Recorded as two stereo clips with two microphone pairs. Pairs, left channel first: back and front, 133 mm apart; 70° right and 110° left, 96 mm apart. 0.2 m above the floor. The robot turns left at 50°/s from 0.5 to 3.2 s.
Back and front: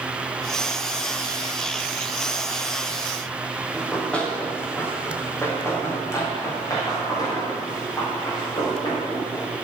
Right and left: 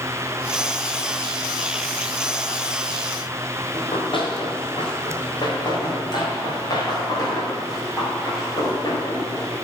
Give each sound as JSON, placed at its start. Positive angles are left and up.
{"t": 3.7, "sound": "running footsteps", "azimuth_deg": -95, "distance_m": 3.0}